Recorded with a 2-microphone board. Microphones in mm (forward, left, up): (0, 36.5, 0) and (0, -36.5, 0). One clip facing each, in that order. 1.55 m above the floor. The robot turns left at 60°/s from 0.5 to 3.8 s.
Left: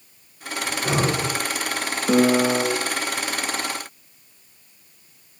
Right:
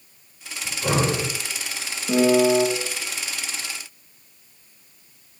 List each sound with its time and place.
0.7 s breathing: 80° right, 4 m; by 1.3 s 120° right, 4 m
2.1 s a piano: 115° left, 1.1 m; by 2.6 s 80° left, 1.1 m